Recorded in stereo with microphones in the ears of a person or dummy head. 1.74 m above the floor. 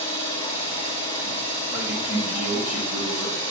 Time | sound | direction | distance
0.0 | an engine running | 35° left (ahead or behind) | 1.5 m
1.7 | a man speaking | 10° right (ahead or behind) | 2.5 m